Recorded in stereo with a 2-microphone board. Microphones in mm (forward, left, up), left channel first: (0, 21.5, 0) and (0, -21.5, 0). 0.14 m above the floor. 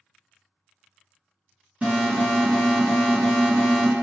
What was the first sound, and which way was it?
An alarm, 30° right (ahead or behind).